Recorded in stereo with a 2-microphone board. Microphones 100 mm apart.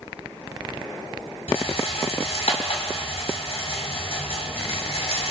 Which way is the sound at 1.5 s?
85° left.